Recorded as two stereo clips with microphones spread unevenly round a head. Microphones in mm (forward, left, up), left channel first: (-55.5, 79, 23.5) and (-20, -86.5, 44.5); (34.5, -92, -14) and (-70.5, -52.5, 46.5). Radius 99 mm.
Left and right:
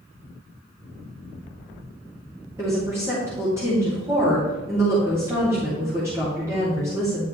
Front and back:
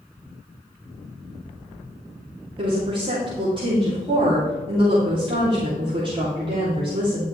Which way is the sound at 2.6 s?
155° right.